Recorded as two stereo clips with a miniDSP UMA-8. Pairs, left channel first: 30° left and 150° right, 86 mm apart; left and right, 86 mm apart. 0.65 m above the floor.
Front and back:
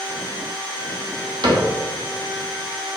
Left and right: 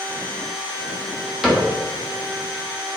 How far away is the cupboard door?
About 1.2 m.